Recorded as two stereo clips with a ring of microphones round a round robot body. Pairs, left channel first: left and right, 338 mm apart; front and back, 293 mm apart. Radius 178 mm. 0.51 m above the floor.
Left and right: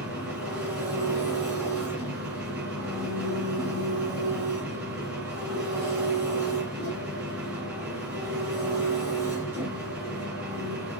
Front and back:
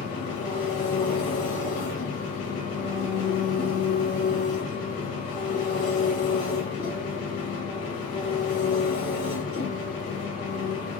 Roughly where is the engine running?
Ahead.